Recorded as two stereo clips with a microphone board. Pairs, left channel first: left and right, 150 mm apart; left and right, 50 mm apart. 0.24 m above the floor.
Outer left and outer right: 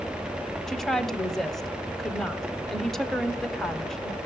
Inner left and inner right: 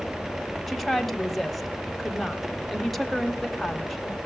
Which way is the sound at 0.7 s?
Centre (ahead or behind).